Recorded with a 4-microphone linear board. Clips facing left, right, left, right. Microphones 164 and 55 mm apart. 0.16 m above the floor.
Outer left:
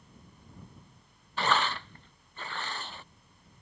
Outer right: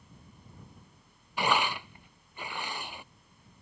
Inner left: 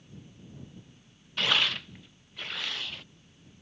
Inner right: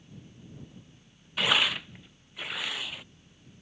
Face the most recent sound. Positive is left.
turn(degrees=-10)  # may be behind; listen again after turning